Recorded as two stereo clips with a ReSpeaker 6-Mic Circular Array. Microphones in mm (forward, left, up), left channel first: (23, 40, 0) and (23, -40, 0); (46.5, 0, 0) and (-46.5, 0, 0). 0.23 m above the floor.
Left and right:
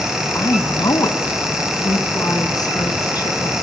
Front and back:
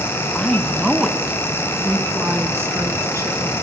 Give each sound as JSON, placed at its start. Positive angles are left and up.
{"t": 0.3, "sound": "a woman speaking", "azimuth_deg": 75, "distance_m": 1.1}